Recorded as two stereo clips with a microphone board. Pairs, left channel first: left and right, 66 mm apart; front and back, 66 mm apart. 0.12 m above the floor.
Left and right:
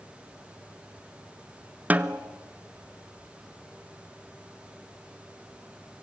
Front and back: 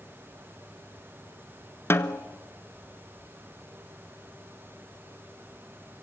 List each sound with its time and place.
1.9 s a snare drum: 35° right, 0.8 m